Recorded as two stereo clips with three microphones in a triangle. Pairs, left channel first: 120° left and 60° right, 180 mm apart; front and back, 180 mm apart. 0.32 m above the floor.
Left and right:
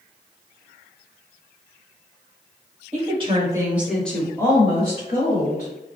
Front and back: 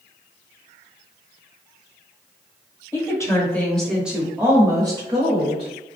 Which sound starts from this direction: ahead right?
A woman speaking, at 2.9 s.